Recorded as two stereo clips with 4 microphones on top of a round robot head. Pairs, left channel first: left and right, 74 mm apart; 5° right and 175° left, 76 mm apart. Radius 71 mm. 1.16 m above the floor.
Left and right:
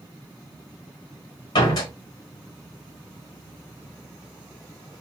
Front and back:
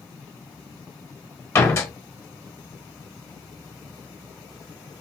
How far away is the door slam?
About 1.5 m.